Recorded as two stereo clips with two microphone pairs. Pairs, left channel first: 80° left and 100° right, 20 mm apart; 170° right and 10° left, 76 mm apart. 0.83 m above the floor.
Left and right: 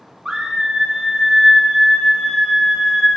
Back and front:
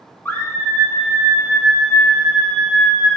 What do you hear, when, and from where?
0.2 s a scream: 120° right, 1.0 m; by 3.2 s 55° right, 3.5 m